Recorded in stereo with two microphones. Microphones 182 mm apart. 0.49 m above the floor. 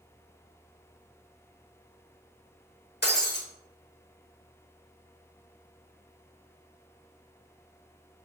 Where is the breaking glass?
65° left (ahead or behind), 0.7 m.